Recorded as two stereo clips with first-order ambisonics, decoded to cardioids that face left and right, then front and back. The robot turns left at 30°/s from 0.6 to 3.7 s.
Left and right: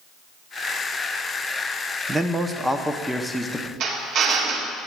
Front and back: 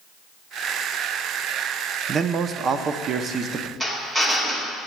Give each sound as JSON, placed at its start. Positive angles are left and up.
{"t": 2.1, "sound": "a man speaking", "azimuth_deg": -150, "distance_m": 0.6}
{"t": 3.8, "sound": "a drill", "azimuth_deg": -110, "distance_m": 1.6}